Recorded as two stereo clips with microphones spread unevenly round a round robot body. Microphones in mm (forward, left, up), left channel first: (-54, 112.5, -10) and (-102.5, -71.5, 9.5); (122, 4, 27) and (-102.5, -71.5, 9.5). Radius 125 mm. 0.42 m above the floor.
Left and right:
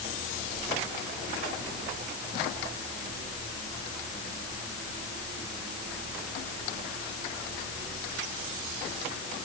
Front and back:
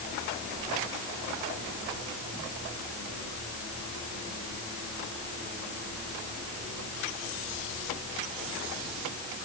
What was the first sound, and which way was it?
Only background noise.